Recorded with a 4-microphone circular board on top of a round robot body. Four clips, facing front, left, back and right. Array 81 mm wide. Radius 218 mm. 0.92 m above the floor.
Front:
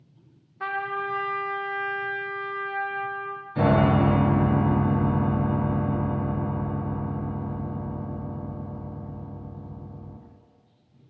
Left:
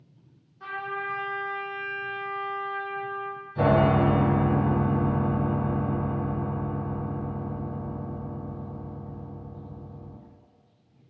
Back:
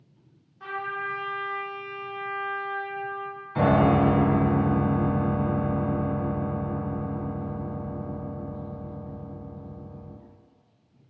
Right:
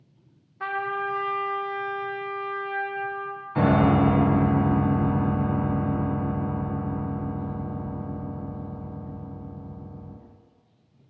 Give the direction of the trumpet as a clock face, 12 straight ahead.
2 o'clock.